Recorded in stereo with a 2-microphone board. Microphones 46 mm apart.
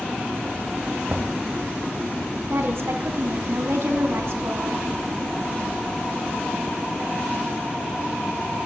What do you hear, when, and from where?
1.1 s knocking: 40° right (ahead or behind), 1.1 m
2.5 s a woman speaking: 70° right (ahead or behind), 3 m